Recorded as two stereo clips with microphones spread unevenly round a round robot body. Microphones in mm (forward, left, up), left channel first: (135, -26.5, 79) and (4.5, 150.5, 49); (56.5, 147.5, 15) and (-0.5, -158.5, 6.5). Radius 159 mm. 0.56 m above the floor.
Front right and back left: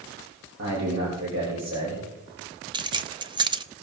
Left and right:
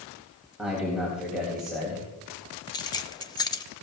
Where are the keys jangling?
150° left, 0.6 m.